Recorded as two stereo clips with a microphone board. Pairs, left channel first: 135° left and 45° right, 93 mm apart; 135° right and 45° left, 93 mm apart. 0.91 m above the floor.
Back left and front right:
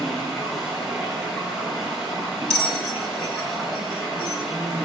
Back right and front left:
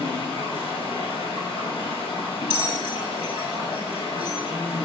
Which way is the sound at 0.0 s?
130° right.